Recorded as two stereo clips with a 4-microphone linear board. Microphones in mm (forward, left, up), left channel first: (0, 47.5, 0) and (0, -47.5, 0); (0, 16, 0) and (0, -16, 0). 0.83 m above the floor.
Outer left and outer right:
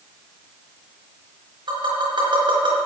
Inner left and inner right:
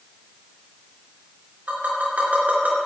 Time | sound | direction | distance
1.7 | tapping | 60° right (ahead or behind) | 3.5 m